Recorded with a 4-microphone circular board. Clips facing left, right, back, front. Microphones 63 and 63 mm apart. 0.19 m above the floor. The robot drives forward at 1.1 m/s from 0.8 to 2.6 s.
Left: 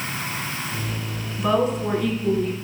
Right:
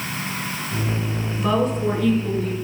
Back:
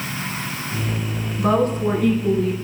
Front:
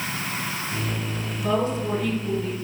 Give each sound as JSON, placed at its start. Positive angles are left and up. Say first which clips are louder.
{"t": 1.4, "sound": "a woman speaking", "louder": "even, back 5 dB", "azimuth_deg": 175, "distance_m": 2.5}